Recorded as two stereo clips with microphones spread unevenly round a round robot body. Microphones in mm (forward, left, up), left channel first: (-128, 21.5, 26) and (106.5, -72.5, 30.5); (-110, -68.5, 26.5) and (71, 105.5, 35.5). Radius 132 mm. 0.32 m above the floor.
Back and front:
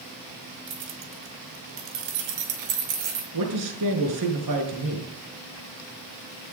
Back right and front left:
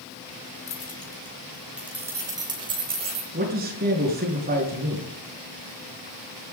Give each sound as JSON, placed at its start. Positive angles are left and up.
{"t": 0.7, "sound": "keys jangling", "azimuth_deg": -70, "distance_m": 2.5}
{"t": 3.3, "sound": "a man speaking", "azimuth_deg": -15, "distance_m": 5.5}